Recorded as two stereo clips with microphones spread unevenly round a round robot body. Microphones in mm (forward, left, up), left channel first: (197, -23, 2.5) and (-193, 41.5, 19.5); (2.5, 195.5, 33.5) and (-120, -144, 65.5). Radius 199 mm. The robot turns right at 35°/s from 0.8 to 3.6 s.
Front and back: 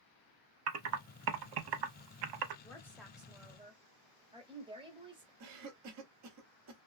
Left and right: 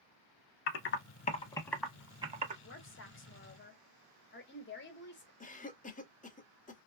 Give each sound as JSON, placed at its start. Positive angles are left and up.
{"t": 0.7, "sound": "typing on a keyboard", "azimuth_deg": 125, "distance_m": 0.6}
{"t": 2.6, "sound": "a woman speaking", "azimuth_deg": 65, "distance_m": 1.1}
{"t": 5.4, "sound": "a cough", "azimuth_deg": 130, "distance_m": 0.8}